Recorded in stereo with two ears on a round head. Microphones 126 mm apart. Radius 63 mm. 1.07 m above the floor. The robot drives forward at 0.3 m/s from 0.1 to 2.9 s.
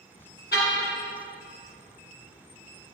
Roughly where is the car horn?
Left.